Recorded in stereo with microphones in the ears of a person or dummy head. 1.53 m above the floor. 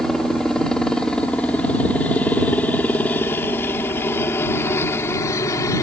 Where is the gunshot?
No gunshot in this recording.